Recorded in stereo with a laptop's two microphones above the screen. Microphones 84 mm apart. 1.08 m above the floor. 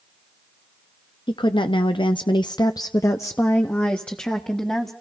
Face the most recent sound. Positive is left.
turn(degrees=5)  # may be behind; listen again after turning